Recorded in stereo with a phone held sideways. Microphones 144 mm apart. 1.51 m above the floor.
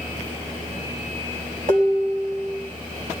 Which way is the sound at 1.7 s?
70° right (ahead or behind).